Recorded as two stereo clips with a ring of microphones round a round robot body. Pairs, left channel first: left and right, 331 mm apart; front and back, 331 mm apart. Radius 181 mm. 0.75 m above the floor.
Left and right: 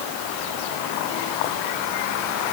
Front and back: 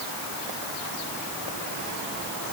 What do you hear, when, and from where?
Only background noise.